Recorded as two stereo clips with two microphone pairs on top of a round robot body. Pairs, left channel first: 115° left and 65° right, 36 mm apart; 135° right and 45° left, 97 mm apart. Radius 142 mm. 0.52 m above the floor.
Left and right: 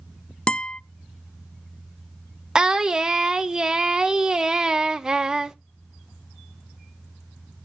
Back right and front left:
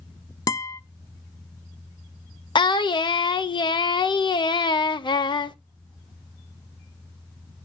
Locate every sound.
0.5 s a guitar: 170° left, 0.5 m
2.5 s singing: 145° right, 1.1 m